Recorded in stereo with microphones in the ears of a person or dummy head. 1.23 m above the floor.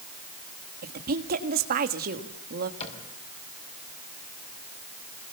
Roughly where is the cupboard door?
Left.